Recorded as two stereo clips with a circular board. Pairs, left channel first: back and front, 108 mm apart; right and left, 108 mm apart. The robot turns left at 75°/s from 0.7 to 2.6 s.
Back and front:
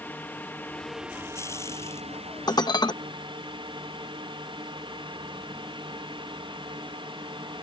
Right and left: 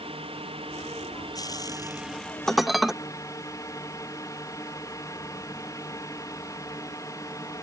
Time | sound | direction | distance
0.0 | a drone | 110° left | ?
2.5 | dishes clattering | 170° right | ?